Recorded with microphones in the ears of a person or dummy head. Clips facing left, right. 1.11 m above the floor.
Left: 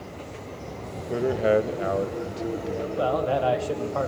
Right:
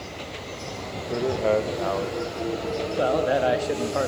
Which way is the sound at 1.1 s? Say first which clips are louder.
Left 1 dB; centre (ahead or behind).